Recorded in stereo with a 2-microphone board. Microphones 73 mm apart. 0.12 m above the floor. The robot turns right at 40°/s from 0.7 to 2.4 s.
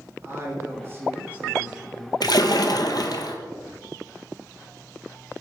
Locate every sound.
0.2 s a woman speaking: 55° right, 2.0 m; by 2.1 s straight ahead, 2.0 m
2.2 s a splash: 70° left (ahead or behind), 0.6 m; by 3.4 s 65° left (ahead or behind), 0.6 m